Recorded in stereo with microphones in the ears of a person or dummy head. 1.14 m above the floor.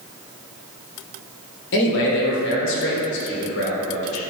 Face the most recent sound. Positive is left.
turn(degrees=60)  # may be behind; listen again after turning